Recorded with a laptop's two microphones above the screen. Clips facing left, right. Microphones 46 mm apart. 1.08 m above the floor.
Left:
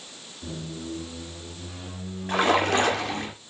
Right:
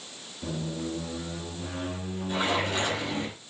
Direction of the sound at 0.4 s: 45° right (ahead or behind).